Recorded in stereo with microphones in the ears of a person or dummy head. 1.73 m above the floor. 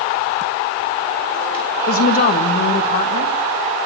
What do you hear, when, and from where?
1.9 s a woman speaking: 45° left (ahead or behind), 1.8 m